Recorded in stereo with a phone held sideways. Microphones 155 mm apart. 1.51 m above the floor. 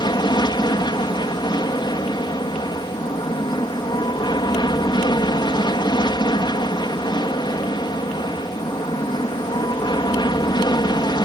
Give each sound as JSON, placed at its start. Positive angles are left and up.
{"t": 0.0, "sound": "an aircraft", "side_deg": 30}